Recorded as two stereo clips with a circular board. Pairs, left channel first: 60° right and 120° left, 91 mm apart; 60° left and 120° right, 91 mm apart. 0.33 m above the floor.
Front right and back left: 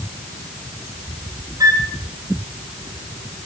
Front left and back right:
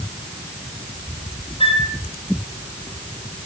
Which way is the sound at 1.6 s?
70° left.